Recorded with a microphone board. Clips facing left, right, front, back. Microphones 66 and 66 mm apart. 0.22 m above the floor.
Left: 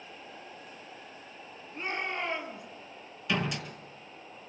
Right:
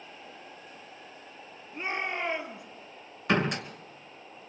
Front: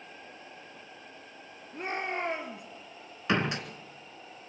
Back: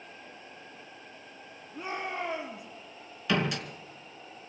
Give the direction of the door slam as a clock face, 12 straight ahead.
2 o'clock.